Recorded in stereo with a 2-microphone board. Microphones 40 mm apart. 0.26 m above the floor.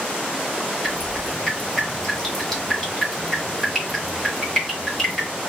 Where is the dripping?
10° left (ahead or behind), 1.7 m.